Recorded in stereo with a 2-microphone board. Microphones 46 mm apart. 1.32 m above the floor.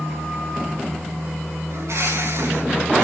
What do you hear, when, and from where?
1.7 s a bird: 85° right, 6.5 m